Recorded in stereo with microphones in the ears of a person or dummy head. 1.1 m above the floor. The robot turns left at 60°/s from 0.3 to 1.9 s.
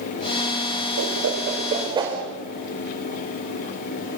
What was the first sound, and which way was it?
A whoosh, 80° right.